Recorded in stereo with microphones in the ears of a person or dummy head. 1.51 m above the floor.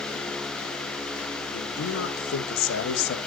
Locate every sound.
1.5 s a man speaking: 80° left, 2 m; by 3.2 s 70° left (ahead or behind), 1.5 m